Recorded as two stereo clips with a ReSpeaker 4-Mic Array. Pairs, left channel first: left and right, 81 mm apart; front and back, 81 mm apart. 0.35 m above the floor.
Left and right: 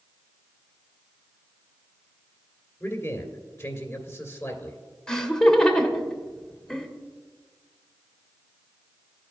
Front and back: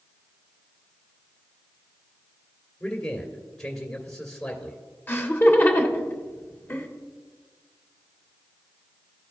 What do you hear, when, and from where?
2.8 s a man speaking: 70° left, 1.6 m
5.1 s laughter: 20° left, 0.9 m